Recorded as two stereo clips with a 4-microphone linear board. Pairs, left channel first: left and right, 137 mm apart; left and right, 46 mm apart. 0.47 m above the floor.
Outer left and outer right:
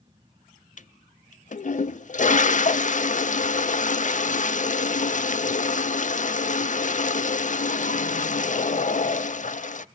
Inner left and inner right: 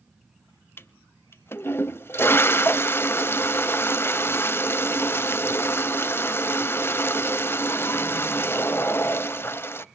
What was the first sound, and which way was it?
A toilet flushing, 65° left (ahead or behind).